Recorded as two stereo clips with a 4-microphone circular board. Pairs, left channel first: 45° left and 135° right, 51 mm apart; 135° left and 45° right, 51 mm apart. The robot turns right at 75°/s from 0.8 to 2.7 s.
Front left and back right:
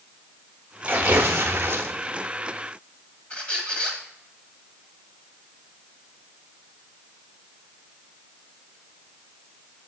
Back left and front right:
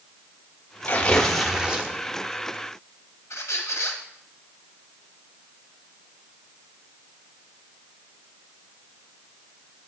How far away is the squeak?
About 1.4 m.